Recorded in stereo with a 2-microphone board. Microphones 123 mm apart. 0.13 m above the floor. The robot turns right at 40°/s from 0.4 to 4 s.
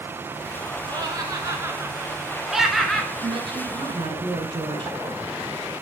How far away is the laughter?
About 1.6 m.